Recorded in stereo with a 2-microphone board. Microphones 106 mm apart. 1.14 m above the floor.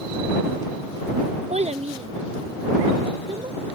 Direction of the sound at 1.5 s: 80° right.